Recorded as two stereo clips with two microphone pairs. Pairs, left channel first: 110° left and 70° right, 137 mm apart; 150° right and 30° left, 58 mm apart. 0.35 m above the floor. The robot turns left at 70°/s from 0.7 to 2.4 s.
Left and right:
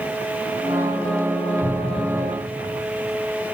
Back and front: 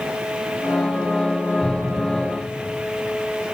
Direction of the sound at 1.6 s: 105° left.